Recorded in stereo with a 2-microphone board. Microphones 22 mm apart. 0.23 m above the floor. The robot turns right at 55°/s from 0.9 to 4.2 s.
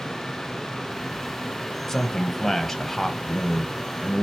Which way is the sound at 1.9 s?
20° left (ahead or behind).